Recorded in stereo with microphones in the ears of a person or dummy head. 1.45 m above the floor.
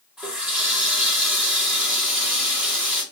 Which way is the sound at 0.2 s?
10° right (ahead or behind).